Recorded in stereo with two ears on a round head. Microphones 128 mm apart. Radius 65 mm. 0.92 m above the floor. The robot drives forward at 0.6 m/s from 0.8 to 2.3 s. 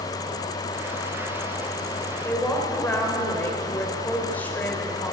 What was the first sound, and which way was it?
A woman speaking, 15° left (ahead or behind).